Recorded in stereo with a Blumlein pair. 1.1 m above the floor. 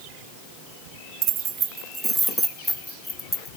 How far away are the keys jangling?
About 0.9 m.